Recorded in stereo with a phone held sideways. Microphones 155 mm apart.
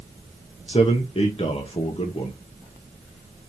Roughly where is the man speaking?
Left.